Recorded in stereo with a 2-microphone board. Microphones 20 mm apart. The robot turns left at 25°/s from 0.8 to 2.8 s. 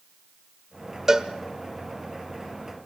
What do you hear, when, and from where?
1.1 s a cowbell: 20° right (ahead or behind), 1.1 m; by 1.3 s 25° right (ahead or behind), 1.1 m